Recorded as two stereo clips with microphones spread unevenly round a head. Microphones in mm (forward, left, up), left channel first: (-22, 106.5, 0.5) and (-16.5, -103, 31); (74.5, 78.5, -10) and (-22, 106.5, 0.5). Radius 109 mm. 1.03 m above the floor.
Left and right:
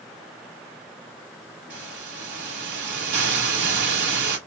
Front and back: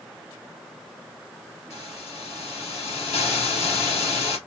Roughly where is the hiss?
Right.